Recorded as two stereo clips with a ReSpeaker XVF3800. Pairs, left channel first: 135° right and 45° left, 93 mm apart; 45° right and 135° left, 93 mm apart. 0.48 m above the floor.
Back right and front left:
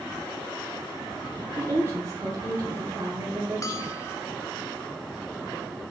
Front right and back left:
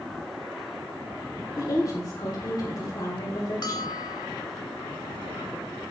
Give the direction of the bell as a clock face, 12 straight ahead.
3 o'clock.